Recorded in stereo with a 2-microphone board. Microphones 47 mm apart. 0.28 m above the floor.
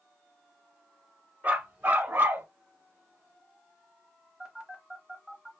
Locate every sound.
1.4 s a dog barking: 30° right (ahead or behind), 1.0 m; by 2.5 s 45° right (ahead or behind), 0.5 m
4.4 s a phone buzzing: 10° right (ahead or behind), 0.9 m